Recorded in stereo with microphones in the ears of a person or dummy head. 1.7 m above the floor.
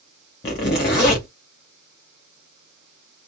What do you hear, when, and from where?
0.4 s a zipper: 25° left (ahead or behind), 0.6 m